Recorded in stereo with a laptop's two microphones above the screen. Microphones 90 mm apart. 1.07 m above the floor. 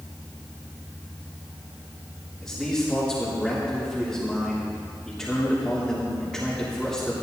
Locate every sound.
2.4 s a man speaking: 5° left (ahead or behind), 3 m